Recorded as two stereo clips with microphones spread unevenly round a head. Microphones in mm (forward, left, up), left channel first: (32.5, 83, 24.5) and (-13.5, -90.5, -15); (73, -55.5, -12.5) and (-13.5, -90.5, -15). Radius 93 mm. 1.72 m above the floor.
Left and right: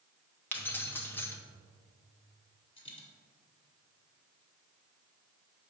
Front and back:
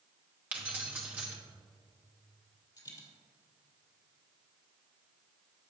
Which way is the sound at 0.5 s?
130° left.